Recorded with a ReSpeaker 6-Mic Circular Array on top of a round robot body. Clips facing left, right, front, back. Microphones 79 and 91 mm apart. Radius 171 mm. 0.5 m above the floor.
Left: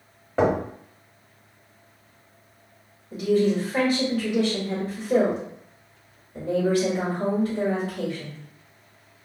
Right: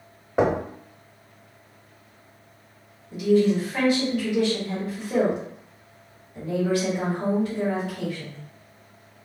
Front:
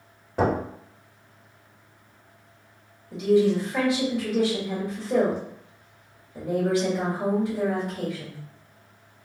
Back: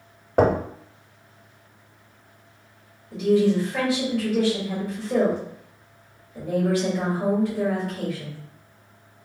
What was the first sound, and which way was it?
Knocking, 165° right.